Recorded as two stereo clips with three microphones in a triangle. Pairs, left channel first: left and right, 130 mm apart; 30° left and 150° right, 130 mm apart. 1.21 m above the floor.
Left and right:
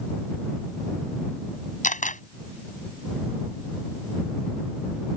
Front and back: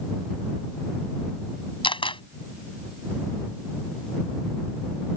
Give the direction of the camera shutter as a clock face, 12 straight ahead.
9 o'clock.